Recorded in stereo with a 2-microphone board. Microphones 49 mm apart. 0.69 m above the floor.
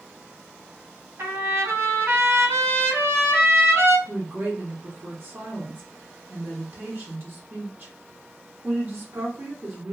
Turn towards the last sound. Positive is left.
turn(degrees=-40)  # may be behind; listen again after turning